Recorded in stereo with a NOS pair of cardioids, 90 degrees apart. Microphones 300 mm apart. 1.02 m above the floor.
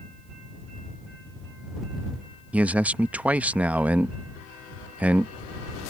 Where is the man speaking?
5° right.